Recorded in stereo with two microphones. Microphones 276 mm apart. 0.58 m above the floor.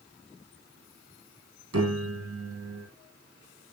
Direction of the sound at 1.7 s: 60° right (ahead or behind).